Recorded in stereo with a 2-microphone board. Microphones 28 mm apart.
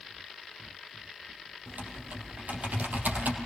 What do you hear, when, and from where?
1.7 s typing on a keyboard: 75° right (ahead or behind), 4 m